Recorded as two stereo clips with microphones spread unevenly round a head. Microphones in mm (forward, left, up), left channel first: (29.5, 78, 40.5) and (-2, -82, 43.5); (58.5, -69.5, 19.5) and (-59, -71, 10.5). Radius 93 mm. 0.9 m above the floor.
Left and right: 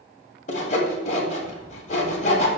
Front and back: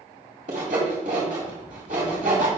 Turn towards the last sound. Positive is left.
turn(degrees=130)